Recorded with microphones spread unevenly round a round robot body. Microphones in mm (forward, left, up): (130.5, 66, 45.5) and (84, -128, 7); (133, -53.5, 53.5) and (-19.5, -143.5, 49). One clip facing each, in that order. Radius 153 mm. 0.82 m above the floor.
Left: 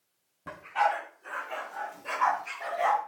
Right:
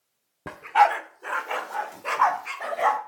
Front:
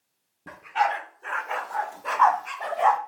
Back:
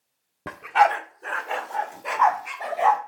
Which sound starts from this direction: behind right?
A dog barking, at 0.5 s.